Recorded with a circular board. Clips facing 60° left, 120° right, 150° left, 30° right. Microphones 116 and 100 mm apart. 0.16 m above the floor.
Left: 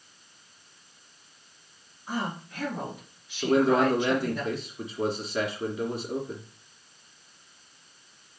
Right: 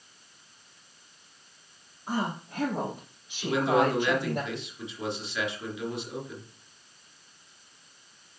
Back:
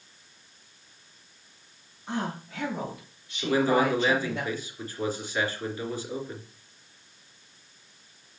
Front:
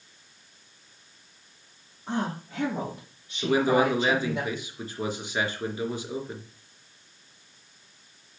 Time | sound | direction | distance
2.1 | a woman speaking | 75° right | 4.5 m
3.4 | a man speaking | 35° left | 2.5 m